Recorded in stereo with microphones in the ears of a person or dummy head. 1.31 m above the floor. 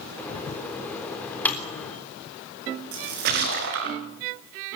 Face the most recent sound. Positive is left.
turn(degrees=-55)  # may be behind; listen again after turning